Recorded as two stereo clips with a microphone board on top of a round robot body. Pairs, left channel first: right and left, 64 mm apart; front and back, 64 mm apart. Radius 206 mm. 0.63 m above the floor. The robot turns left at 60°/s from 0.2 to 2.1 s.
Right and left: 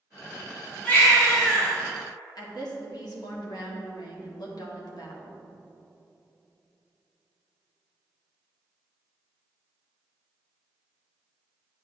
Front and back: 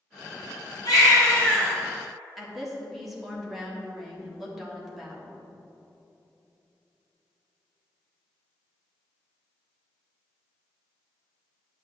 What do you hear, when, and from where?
0.8 s a baby crying: 30° right, 1.8 m; by 1.8 s 80° right, 1.8 m
2.4 s a woman speaking: 90° right, 1.7 m